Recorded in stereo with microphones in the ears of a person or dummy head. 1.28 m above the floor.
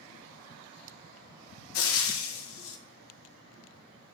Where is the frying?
75° left (ahead or behind), 1.3 m.